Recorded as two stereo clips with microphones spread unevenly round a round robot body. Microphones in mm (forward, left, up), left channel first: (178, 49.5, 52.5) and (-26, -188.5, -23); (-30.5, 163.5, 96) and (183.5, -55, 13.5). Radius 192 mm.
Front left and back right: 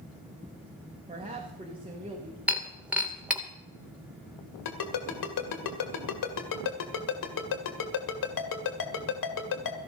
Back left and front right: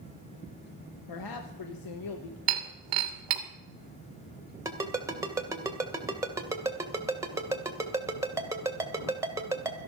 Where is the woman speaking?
160° left, 1.1 m.